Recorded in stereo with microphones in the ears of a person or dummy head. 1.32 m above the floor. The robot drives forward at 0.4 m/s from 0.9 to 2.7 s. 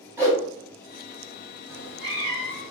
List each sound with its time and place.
0.2 s a whoosh: 10° right (ahead or behind), 1.0 m
1.7 s a cat meowing: 65° left (ahead or behind), 1.2 m; by 2.7 s 55° left (ahead or behind), 1.3 m